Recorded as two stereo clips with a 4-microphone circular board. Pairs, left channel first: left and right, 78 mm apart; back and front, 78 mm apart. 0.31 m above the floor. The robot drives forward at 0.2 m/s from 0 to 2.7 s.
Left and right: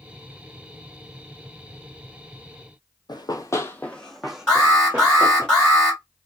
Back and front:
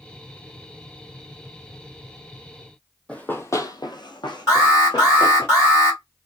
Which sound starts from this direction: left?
Running footsteps, at 3.1 s.